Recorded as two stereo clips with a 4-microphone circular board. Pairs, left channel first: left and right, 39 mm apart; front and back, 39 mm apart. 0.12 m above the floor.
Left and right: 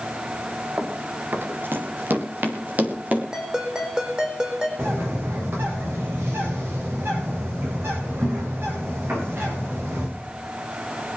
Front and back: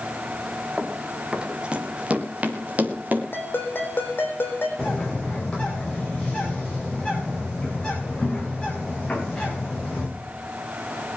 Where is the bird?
65° right, 5.5 m.